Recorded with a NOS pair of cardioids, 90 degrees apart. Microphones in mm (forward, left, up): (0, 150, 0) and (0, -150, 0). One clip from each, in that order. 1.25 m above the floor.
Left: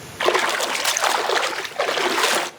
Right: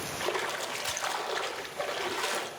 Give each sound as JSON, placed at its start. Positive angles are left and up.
{"t": 0.2, "sound": "a splash", "azimuth_deg": 55, "distance_m": 0.5}